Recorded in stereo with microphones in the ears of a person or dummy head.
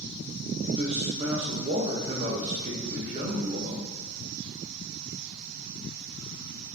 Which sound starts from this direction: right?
A man speaking, at 0.7 s.